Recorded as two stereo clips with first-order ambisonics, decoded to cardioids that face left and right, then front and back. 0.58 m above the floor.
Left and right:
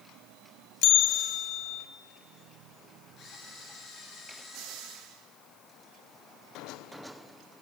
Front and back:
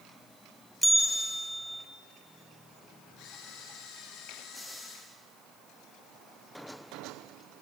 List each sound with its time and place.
0.8 s a bell: 90° left, 0.5 m
3.2 s a camera shutter: 35° left, 2.5 m